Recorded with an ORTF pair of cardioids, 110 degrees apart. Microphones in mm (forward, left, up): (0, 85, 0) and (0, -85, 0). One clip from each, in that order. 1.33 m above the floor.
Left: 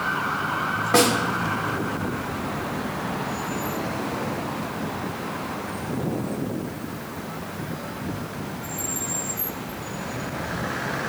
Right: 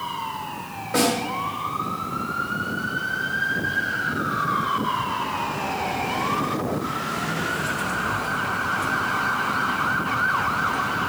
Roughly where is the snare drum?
Ahead left.